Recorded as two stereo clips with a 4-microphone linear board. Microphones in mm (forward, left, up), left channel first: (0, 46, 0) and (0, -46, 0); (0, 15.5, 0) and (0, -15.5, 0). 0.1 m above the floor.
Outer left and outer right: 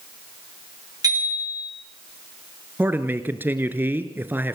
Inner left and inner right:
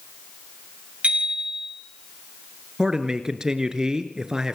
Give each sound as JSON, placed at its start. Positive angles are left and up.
{"t": 1.0, "sound": "a bicycle bell", "side_deg": -40, "distance_m": 8.5}
{"t": 2.8, "sound": "a man speaking", "side_deg": -20, "distance_m": 1.7}